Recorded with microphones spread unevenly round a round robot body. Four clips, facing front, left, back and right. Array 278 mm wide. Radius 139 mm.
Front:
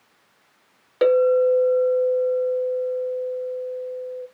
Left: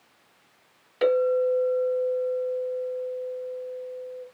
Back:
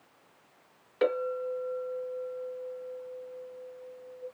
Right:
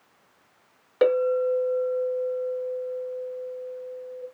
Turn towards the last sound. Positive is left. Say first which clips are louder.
# even, front 13 dB
turn(degrees=-45)